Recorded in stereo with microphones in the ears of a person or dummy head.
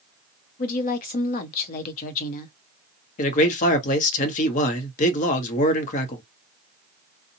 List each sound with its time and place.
0.6 s a woman speaking: 45° left (ahead or behind), 0.7 m
3.2 s a man speaking: 40° left (ahead or behind), 0.8 m